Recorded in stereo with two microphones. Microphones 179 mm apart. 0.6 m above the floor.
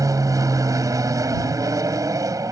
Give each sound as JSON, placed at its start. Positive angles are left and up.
{"t": 0.0, "sound": "an aircraft", "side_deg": -20}